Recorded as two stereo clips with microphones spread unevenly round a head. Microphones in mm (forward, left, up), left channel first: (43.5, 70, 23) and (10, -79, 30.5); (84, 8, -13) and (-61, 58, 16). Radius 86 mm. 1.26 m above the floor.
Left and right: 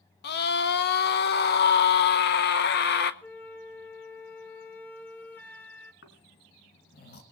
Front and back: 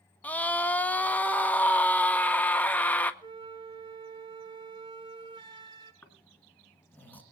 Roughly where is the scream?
Ahead left.